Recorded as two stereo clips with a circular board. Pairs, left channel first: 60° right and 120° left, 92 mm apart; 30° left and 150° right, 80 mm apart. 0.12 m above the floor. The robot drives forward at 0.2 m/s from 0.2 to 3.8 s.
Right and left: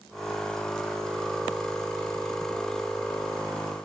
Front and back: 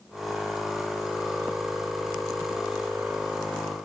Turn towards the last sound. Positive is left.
No sound to turn to.